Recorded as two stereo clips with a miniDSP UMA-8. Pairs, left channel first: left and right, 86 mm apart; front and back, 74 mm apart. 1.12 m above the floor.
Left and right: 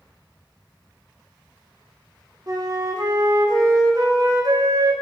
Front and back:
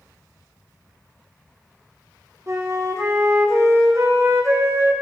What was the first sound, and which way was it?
A flute, 130° right.